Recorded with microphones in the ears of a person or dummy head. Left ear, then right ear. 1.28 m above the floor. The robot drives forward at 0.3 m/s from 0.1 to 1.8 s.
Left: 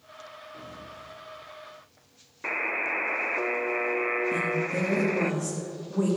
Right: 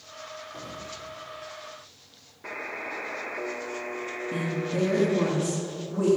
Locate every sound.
0.5 s an explosion: 45° right (ahead or behind), 2.5 m; by 1.2 s 40° right (ahead or behind), 3 m
2.4 s a buzzer: 50° left (ahead or behind), 0.6 m
4.3 s a woman speaking: 20° left (ahead or behind), 2 m